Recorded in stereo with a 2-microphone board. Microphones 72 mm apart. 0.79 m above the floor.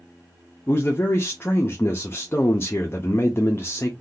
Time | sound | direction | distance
0.7 | a man speaking | 30° left (ahead or behind) | 0.6 m